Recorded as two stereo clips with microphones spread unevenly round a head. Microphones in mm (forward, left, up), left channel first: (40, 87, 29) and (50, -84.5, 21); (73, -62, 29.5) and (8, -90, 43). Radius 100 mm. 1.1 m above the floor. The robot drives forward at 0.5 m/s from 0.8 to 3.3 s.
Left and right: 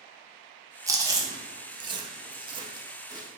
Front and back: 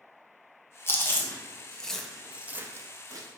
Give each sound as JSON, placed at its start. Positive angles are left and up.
{"t": 0.9, "sound": "chewing", "azimuth_deg": -20, "distance_m": 1.0}